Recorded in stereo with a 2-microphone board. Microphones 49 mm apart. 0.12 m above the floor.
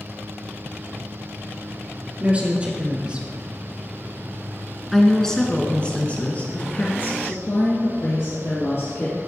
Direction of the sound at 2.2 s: 30° right (ahead or behind).